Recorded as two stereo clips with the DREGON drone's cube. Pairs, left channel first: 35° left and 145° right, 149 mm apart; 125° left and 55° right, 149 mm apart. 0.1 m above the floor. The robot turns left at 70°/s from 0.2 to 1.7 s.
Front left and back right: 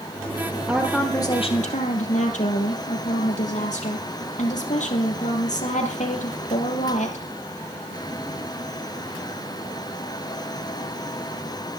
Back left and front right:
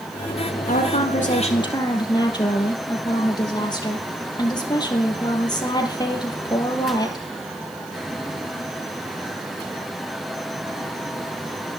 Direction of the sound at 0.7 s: 135° left.